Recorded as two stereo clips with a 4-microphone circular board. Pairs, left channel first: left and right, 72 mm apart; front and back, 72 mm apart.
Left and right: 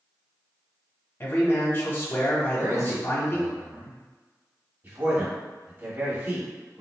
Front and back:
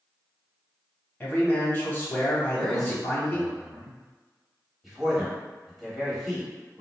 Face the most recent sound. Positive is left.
turn(degrees=-100)